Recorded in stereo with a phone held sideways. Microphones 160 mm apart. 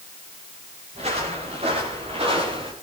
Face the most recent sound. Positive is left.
turn(degrees=-35)  # may be behind; listen again after turning